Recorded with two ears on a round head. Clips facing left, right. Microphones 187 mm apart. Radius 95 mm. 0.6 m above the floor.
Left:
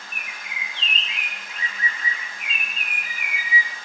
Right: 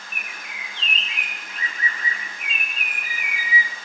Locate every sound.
0.1 s a bird: 45° right (ahead or behind), 0.8 m